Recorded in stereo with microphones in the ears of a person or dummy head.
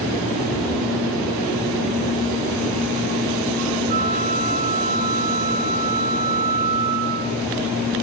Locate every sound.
3.9 s a flute: 45° right (ahead or behind), 4 m